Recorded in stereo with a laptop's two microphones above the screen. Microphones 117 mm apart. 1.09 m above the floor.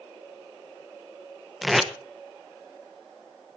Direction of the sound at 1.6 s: Centre (ahead or behind).